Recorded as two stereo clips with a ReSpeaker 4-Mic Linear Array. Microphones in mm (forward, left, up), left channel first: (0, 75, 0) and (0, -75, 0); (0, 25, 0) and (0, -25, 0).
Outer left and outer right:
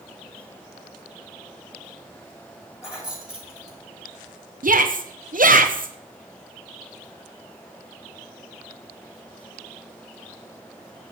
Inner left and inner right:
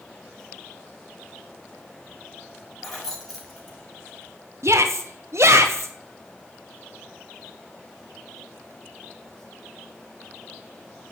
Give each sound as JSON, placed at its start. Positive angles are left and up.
{"t": 2.8, "sound": "keys jangling", "side_deg": -5, "distance_m": 5.5}
{"t": 4.6, "sound": "a shout", "side_deg": -65, "distance_m": 1.0}